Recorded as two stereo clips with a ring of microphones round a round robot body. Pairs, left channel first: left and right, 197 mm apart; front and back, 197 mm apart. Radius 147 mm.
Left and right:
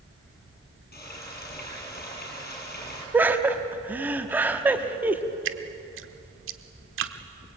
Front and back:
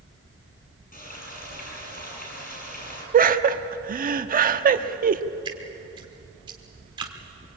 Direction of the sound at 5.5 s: 110° right.